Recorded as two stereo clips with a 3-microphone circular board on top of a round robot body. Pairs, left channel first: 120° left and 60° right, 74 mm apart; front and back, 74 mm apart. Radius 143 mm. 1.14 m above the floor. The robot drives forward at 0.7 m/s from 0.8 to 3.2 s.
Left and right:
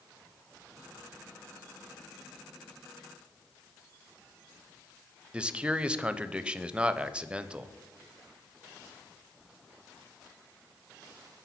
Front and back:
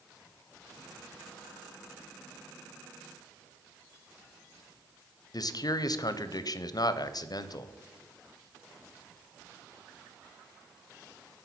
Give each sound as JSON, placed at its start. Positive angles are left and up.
{"t": 5.3, "sound": "a man speaking", "azimuth_deg": 15, "distance_m": 0.5}